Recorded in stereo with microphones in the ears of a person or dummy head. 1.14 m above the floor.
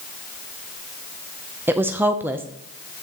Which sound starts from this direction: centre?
A woman speaking, at 1.7 s.